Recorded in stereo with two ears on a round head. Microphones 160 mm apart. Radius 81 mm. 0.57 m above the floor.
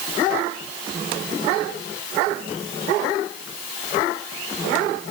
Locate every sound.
Only background noise.